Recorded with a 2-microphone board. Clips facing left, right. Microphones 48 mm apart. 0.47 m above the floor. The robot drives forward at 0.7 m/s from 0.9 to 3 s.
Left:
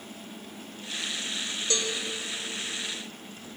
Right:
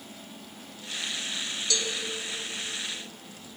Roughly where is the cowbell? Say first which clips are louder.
Left 1 dB; left.